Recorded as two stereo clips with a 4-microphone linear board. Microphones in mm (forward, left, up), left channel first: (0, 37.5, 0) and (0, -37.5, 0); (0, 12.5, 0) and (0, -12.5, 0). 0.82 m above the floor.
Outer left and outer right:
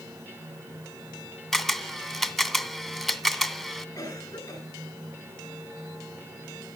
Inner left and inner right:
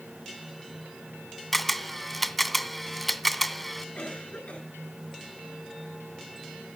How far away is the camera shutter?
About 0.7 m.